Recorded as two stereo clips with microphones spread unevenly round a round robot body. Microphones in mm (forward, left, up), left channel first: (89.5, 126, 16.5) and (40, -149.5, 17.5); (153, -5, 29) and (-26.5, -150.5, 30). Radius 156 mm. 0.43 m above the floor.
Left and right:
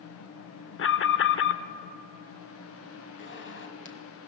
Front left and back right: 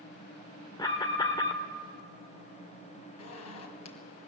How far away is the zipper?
About 2 m.